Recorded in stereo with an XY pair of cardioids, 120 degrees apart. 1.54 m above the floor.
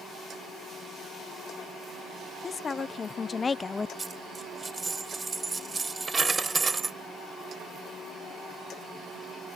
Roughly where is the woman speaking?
Ahead left.